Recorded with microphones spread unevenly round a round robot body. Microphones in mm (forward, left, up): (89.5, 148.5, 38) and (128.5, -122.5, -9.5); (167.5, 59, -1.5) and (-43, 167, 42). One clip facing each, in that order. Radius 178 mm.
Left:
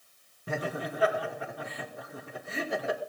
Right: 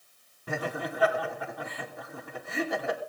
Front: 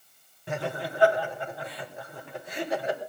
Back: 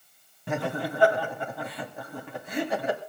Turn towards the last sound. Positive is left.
turn(degrees=175)